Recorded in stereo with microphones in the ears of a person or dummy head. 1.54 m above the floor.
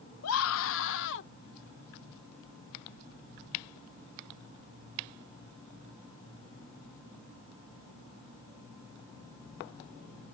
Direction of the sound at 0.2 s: 85° left.